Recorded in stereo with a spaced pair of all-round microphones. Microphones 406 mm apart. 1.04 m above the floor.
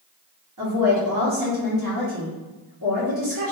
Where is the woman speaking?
50° right (ahead or behind), 1.5 m.